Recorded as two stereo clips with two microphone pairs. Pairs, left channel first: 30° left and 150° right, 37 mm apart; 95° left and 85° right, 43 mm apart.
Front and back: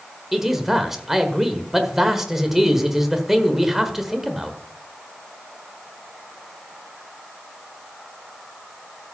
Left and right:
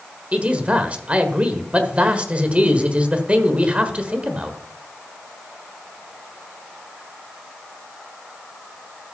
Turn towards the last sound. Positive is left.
turn(degrees=-80)